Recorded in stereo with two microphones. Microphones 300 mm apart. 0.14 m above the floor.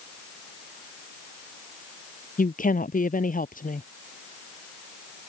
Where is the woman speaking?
25° left (ahead or behind).